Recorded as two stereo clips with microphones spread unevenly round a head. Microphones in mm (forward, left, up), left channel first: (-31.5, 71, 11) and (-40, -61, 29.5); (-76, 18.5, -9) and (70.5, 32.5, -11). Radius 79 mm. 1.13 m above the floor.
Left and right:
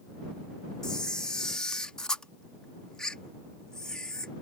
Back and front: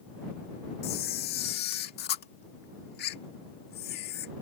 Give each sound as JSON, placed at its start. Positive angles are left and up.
{"t": 0.8, "sound": "a camera shutter", "azimuth_deg": 170}